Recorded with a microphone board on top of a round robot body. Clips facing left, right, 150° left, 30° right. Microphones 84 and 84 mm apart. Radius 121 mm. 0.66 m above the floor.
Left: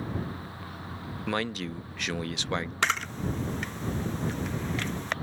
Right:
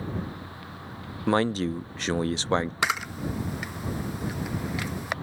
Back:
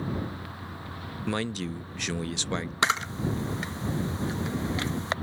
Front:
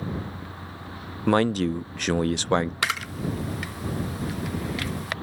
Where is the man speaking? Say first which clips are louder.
Right 8 dB, front 10 dB; 45° right.